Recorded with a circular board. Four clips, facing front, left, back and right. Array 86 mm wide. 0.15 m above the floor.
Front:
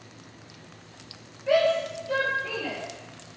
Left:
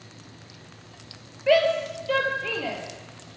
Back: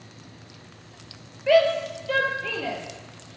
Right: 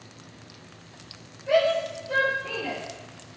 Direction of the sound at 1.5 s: 120° left.